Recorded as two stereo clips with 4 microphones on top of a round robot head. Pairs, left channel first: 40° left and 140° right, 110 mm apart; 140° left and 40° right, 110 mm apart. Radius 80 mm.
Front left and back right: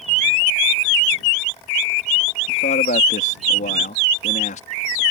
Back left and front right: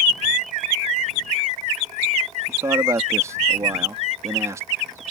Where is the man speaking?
25° left.